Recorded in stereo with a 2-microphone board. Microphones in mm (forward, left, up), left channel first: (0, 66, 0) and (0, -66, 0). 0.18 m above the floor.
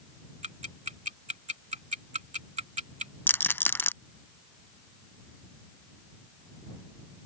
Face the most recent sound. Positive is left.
turn(degrees=15)  # may be behind; listen again after turning